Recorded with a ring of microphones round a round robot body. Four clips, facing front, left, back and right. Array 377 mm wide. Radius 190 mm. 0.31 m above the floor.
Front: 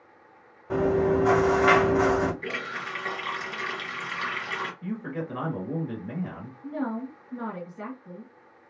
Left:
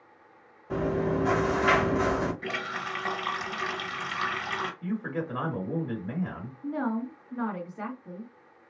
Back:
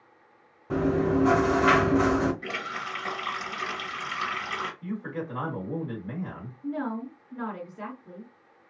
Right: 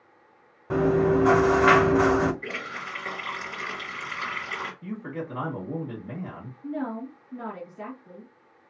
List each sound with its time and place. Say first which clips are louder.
0.7 s chewing: right 6 dB, front 2 dB; 95° right, 1.6 m
2.4 s a running tap: left 2 dB, even; 95° left, 1.5 m
4.8 s a man speaking: left 2 dB, front 1 dB; 75° left, 1.6 m
6.6 s a woman speaking: left 1 dB, even; 80° left, 1.3 m